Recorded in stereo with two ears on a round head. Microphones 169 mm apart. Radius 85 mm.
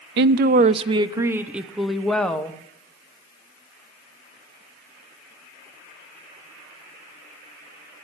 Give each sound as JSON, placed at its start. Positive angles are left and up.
{"t": 0.2, "sound": "a woman speaking", "side_deg": -60, "distance_m": 0.6}